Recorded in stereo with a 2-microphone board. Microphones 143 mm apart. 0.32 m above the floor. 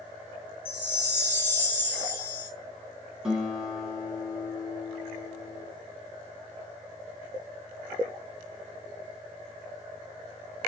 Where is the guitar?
5° right (ahead or behind), 1.2 m.